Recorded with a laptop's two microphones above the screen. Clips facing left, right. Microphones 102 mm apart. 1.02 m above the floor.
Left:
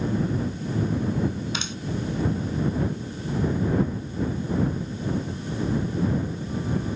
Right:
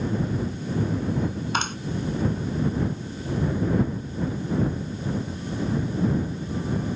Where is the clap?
50° right (ahead or behind).